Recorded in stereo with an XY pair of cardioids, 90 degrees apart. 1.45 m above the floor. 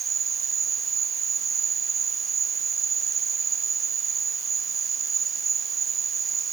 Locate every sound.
0.0 s an insect: 55° right